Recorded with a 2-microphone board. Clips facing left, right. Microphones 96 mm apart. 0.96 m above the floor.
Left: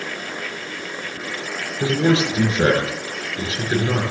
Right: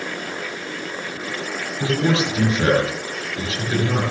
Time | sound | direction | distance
1.8 | a man speaking | 30° left (ahead or behind) | 9.5 m